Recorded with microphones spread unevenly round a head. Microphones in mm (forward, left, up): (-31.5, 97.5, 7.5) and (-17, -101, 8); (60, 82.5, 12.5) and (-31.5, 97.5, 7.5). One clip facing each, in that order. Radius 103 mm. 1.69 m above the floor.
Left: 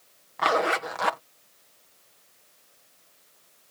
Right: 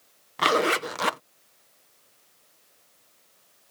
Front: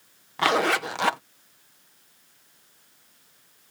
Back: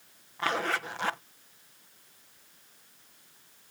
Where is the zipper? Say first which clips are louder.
Right 2 dB, front 8 dB; 35° right.